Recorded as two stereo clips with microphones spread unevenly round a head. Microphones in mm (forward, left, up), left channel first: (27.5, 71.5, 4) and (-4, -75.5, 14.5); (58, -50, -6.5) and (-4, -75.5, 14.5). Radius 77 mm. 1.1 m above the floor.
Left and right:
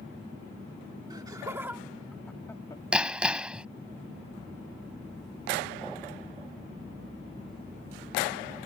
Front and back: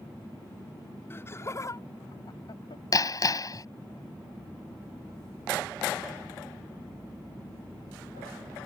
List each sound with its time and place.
1.1 s laughter: 40° right; by 2.8 s 10° left
2.9 s hammering: 20° right